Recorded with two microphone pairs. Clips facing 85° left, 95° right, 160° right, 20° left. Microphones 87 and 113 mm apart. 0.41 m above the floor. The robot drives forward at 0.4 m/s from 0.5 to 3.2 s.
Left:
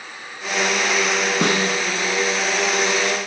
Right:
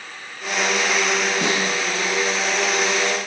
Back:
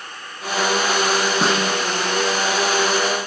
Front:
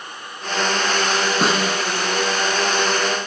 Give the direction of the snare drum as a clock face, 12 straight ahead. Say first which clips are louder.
Left 2 dB, even; 8 o'clock.